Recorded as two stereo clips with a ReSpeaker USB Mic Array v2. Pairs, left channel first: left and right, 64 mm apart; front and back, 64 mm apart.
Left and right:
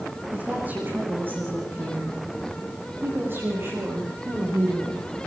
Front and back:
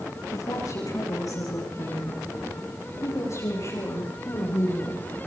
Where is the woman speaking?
25° right, 8.5 m; by 5.0 s 45° right, 12.5 m.